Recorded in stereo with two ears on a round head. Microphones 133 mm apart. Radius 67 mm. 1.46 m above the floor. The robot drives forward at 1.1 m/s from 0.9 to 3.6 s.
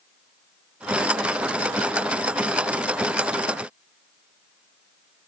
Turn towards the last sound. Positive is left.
No sound to turn to.